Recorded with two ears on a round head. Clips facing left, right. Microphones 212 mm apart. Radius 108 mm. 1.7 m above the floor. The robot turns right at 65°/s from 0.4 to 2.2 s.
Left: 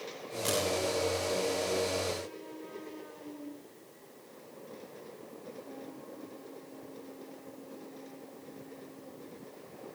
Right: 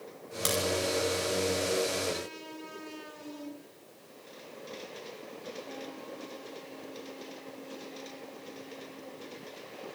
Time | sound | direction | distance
0.5 | a crack | 65° right (ahead or behind) | 10 m